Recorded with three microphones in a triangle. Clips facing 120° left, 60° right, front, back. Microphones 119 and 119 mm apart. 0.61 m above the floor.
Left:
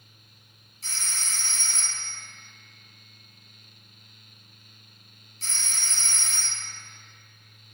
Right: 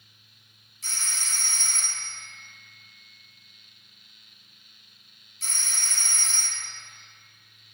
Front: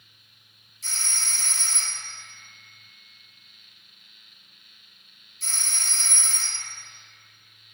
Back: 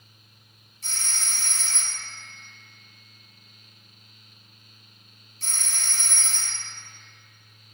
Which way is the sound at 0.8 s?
175° left.